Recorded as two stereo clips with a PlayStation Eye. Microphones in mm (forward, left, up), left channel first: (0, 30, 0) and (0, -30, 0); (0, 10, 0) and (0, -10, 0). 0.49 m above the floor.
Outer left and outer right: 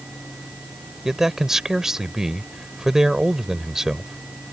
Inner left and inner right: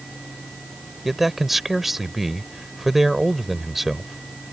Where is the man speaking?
5° right (ahead or behind).